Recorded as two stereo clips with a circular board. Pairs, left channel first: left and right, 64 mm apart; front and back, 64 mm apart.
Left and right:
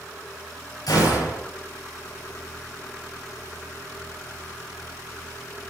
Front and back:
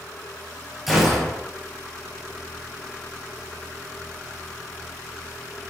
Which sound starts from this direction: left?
A gunshot, at 0.9 s.